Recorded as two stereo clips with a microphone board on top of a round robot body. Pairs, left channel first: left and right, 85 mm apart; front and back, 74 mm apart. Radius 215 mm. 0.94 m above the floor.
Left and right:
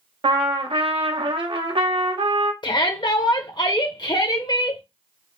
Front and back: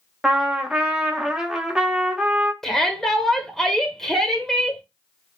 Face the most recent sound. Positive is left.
turn(degrees=85)